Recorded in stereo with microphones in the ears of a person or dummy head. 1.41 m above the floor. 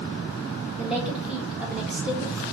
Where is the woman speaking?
Centre (ahead or behind), 1.1 m.